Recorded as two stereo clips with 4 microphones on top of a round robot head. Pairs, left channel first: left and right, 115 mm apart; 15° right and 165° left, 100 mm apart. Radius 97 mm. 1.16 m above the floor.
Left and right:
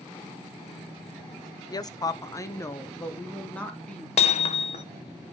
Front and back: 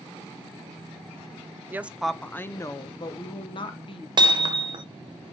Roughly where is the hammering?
Behind left.